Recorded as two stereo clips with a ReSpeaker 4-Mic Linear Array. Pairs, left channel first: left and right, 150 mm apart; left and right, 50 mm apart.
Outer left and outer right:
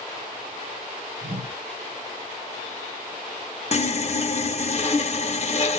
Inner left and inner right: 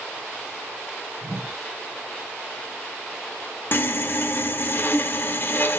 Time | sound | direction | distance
1.2 | a whoosh | 70° right (ahead or behind) | 1.2 m
3.7 | sawing | 45° left (ahead or behind) | 0.6 m